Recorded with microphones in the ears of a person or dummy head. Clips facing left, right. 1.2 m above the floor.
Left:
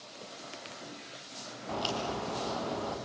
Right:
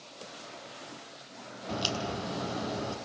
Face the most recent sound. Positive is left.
turn(degrees=-25)  # may be behind; listen again after turning